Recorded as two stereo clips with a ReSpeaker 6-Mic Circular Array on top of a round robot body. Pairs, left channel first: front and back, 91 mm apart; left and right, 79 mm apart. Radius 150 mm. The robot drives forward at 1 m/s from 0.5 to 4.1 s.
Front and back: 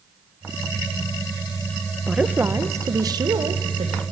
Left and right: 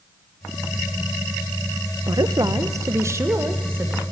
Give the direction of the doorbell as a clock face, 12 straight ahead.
I don't hear a doorbell.